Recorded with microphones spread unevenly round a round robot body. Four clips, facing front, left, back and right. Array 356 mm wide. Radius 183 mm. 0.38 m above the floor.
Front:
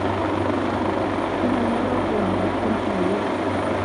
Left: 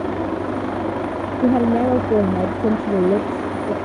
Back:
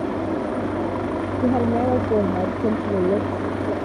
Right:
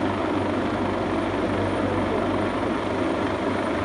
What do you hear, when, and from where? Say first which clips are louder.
1.4 s a woman speaking: left 7 dB, back 4 dB; 95° left